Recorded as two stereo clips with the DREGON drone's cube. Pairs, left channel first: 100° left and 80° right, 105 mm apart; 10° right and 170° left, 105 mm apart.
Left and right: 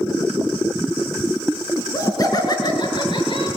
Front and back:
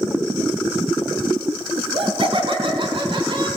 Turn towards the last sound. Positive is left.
turn(degrees=130)